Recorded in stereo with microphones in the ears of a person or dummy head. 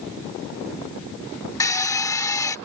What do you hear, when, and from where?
1.6 s a drill: 20° left (ahead or behind)